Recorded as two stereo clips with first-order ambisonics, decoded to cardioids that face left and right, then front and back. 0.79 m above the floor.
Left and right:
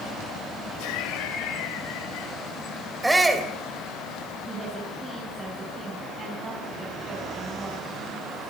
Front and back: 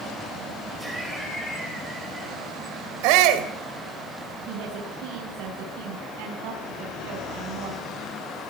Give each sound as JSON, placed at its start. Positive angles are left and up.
{"t": 0.8, "sound": "laughter", "azimuth_deg": 100, "distance_m": 3.5}
{"t": 3.0, "sound": "a shout", "azimuth_deg": -170, "distance_m": 3.5}
{"t": 4.5, "sound": "a woman speaking", "azimuth_deg": -160, "distance_m": 5.5}